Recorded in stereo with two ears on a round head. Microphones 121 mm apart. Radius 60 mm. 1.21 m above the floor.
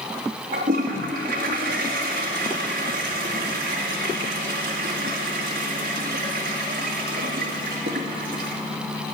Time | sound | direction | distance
0.5 | a toilet flushing | 70° right (ahead or behind) | 2 m